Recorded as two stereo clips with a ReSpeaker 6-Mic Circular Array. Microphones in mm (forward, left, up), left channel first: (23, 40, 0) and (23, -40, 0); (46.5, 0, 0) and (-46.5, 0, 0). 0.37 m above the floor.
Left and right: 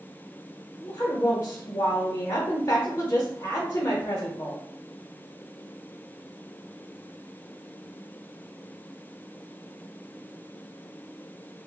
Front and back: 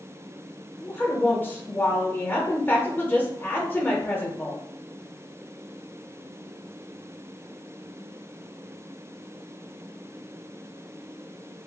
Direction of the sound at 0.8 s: 55° left.